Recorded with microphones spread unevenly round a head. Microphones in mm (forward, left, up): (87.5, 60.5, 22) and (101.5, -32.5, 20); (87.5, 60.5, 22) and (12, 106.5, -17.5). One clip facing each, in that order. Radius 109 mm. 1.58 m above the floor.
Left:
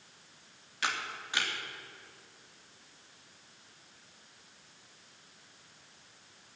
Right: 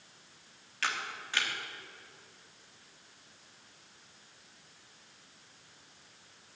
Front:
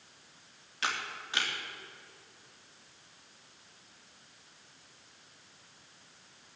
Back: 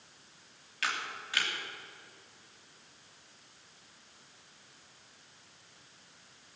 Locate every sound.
0.8 s a camera shutter: 25° left, 3 m